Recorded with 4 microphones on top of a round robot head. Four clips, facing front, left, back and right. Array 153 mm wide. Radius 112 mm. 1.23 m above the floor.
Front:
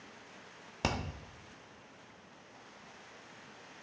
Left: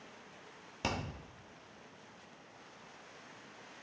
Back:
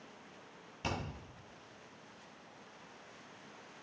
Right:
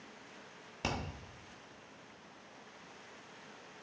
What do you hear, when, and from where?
0.8 s hammering: 5° left, 1.1 m